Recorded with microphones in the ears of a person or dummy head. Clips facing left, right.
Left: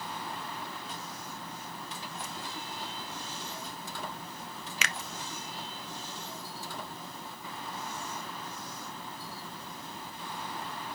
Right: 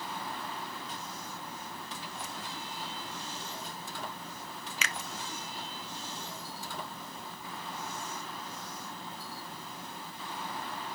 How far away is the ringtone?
No ringtone in this recording.